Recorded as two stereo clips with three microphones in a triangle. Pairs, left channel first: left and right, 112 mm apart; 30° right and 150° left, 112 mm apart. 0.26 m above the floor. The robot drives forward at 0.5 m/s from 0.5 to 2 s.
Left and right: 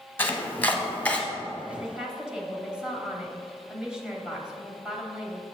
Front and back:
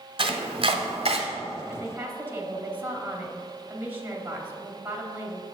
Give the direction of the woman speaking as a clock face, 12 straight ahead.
5 o'clock.